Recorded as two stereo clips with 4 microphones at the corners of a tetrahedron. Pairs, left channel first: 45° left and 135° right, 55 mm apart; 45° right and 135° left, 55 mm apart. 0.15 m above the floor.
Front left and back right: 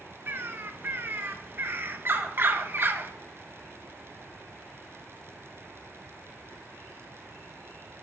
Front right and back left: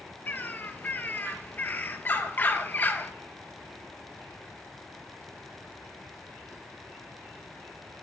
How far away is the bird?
About 1.4 m.